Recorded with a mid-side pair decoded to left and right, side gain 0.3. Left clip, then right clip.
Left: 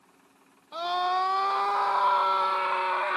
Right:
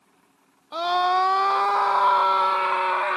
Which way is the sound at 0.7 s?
70° right.